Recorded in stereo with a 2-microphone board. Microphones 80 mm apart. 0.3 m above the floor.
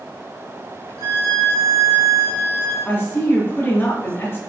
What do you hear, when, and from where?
1.0 s a violin: 50° right (ahead or behind), 2.5 m
2.9 s a woman speaking: 30° left (ahead or behind), 1.3 m